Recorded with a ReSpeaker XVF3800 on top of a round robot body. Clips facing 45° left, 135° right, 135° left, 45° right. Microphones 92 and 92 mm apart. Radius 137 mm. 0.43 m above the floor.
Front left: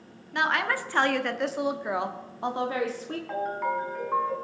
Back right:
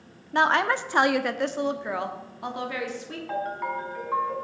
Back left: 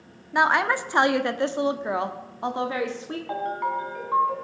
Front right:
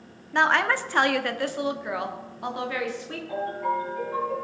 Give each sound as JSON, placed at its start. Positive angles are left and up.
{"t": 0.3, "sound": "a woman speaking", "azimuth_deg": -150, "distance_m": 1.2}
{"t": 3.3, "sound": "a ringtone", "azimuth_deg": 135, "distance_m": 4.0}